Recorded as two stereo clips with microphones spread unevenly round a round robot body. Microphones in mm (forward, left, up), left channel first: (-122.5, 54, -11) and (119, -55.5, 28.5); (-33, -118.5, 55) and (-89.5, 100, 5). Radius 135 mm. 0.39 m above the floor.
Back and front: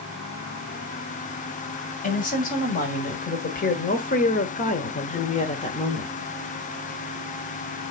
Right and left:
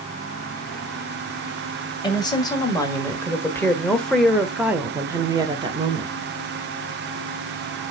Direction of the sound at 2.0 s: 150° right.